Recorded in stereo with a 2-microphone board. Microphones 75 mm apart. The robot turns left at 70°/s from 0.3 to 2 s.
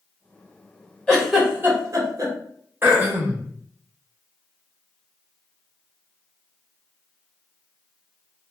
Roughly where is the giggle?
Centre.